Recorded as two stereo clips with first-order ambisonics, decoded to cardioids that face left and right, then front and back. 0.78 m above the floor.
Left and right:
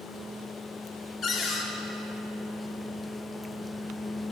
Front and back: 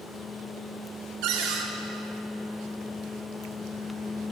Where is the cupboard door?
150° left, 0.6 m.